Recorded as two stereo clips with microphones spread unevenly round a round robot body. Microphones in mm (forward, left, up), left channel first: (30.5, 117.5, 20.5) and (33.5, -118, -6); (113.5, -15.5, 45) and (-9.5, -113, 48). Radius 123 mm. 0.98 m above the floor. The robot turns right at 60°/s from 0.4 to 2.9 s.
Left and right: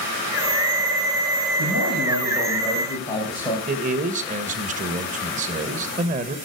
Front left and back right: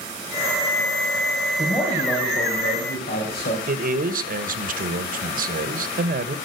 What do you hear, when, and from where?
1.6 s a man speaking: 60° right, 6 m; by 3.6 s 15° left, 6 m
3.7 s a man speaking: 140° right, 1.3 m